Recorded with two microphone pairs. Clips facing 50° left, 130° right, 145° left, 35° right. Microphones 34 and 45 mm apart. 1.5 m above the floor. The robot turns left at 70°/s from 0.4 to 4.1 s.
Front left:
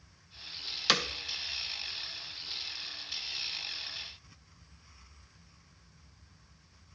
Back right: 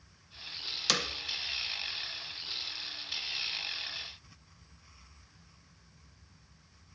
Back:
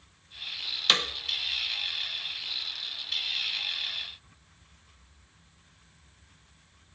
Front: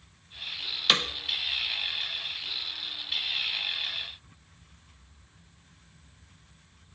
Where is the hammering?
50° left, 0.5 m; by 1.0 s 35° left, 0.5 m.